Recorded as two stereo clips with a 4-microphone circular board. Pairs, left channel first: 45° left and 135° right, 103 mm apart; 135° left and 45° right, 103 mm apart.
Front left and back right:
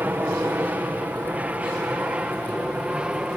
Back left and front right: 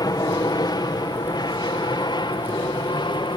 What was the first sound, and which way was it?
An aircraft, 160° left.